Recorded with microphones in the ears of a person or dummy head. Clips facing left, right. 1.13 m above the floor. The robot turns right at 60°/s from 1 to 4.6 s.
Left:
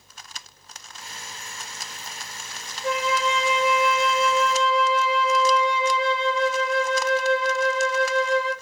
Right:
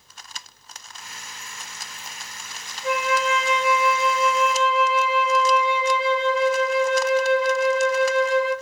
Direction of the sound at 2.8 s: 15° right.